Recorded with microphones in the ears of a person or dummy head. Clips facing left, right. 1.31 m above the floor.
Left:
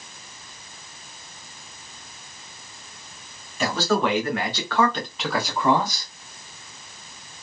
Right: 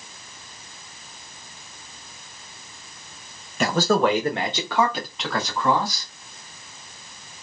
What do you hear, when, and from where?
3.6 s a man speaking: 50° right (ahead or behind), 1.0 m; by 6.1 s 20° left (ahead or behind), 1.2 m